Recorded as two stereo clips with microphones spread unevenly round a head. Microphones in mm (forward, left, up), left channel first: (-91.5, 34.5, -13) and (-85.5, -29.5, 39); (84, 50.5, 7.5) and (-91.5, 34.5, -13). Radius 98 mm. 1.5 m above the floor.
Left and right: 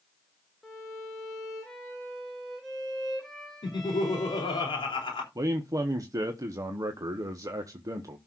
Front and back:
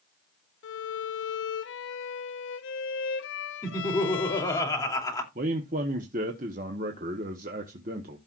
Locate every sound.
0.6 s a violin: 5° right, 0.9 m
3.6 s laughter: 75° left, 3 m
5.3 s a man speaking: 120° right, 1.0 m